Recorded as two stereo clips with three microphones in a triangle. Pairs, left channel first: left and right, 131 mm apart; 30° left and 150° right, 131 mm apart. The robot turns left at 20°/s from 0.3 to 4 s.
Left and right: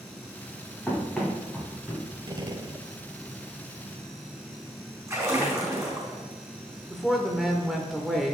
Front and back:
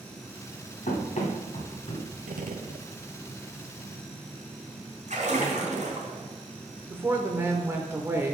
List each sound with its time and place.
0.9 s running footsteps: 15° left, 2.5 m; by 2.1 s 15° right, 3.5 m
2.3 s a gunshot: 145° right, 0.6 m; by 2.9 s 160° right, 0.6 m
5.1 s a splash: 155° right, 3.5 m
6.9 s a woman speaking: 175° right, 0.8 m